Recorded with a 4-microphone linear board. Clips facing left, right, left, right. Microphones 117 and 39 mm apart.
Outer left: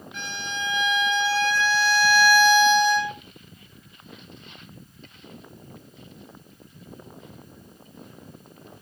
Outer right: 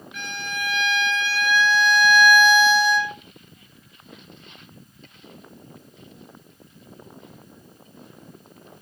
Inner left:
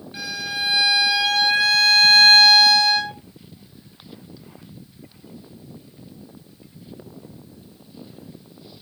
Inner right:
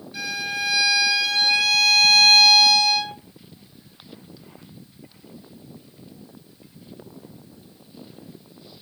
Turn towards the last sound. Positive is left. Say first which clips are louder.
# outer right 1 dB, inner right 1 dB
turn(degrees=25)  # may be behind; listen again after turning